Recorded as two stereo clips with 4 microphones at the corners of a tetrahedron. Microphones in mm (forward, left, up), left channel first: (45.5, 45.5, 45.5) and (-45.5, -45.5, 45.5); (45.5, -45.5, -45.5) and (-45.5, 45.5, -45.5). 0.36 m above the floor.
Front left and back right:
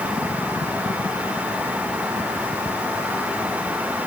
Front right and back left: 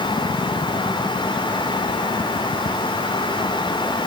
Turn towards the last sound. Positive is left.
No sound to turn to.